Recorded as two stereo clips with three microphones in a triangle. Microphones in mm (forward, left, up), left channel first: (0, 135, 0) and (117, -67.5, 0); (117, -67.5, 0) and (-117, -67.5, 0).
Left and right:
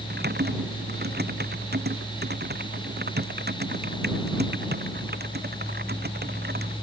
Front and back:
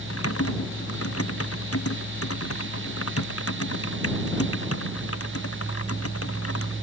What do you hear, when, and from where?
0.1 s typing on a keyboard: 15° right